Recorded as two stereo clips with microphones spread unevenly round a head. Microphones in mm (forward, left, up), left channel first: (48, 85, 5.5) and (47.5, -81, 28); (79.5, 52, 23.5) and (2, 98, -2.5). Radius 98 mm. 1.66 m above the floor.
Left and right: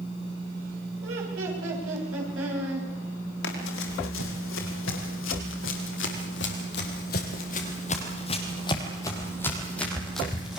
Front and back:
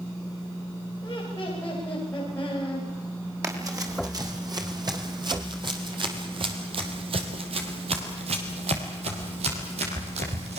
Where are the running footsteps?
95° left, 5.5 m; by 10.6 s 175° right, 4.5 m.